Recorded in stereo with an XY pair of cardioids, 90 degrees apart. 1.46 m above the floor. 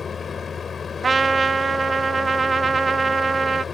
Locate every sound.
0.0 s a machine running: 45° left
1.0 s a trumpet: 35° right